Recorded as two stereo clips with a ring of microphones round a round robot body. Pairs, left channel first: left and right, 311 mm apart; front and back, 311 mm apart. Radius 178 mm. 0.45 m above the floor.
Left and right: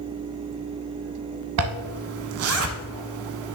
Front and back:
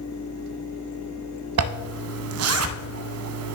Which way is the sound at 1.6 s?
140° right.